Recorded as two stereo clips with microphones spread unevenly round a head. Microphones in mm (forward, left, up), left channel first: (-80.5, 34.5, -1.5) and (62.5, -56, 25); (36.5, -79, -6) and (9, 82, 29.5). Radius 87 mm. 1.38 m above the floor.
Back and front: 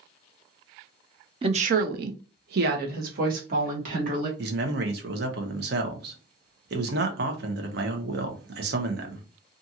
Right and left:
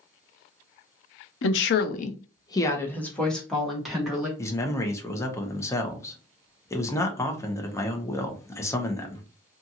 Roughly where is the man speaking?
Ahead.